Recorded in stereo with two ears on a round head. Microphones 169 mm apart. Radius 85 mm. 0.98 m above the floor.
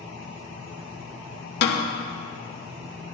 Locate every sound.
1.6 s a snare drum: 60° left (ahead or behind), 1.3 m